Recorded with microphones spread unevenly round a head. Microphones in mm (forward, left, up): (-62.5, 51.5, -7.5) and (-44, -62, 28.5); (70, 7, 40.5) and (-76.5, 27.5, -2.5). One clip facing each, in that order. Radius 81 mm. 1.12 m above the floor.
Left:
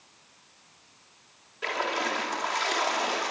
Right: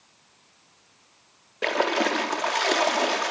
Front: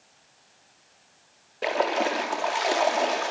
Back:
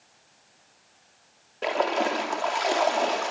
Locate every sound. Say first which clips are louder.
1.6 s a splash: right 6 dB, even; 95° right, 2.5 m